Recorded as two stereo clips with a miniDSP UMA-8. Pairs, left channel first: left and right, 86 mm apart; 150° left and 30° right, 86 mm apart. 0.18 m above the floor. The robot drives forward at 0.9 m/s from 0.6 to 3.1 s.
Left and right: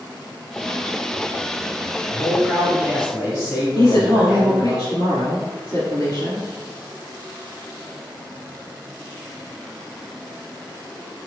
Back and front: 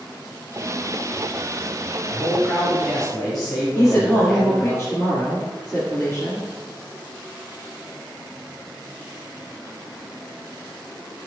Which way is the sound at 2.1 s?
25° right.